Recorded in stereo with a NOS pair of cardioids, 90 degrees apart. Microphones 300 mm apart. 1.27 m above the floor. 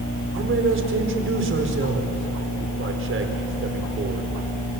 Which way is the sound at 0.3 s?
45° right.